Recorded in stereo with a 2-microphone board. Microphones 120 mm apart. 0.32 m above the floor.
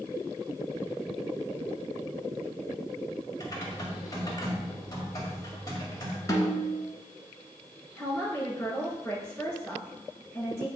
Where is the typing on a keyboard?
30° left (ahead or behind), 2 m.